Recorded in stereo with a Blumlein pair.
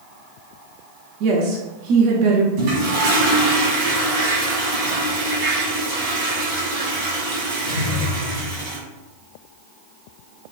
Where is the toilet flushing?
50° right, 1.4 m.